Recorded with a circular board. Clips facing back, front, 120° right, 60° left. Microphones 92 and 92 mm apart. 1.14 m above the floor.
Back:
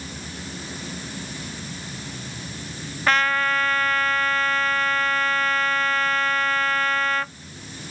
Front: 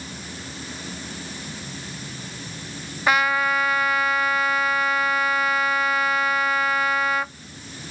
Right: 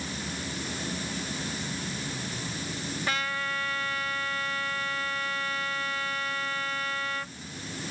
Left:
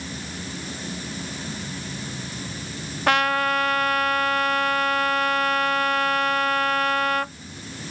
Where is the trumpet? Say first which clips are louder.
Front 1 dB, left 13 dB; 80° left.